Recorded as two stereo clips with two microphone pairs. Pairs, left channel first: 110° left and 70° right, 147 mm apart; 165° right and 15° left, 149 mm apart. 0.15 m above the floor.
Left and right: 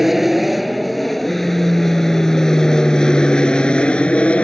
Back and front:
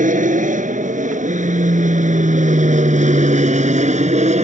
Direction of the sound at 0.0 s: 20° left.